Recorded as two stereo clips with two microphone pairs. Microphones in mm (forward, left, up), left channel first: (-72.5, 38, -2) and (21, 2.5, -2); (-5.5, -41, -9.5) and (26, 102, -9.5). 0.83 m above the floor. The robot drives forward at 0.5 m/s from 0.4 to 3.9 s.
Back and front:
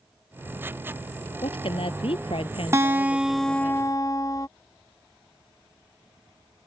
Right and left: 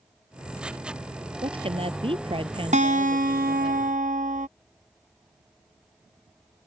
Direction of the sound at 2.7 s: 45° left.